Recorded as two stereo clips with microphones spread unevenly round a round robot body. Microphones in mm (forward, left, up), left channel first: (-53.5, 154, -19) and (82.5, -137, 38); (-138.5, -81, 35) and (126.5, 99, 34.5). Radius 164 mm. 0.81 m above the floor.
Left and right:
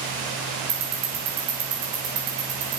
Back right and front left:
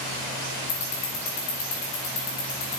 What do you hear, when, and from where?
0.7 s ticking: 105° right, 3 m